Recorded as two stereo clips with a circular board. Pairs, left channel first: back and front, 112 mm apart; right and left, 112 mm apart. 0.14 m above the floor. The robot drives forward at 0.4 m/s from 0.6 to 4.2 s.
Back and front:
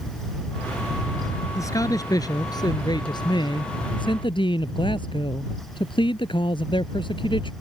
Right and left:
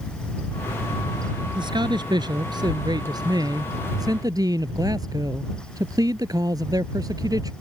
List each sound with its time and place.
1.6 s a man speaking: 125° left; by 7.5 s 145° left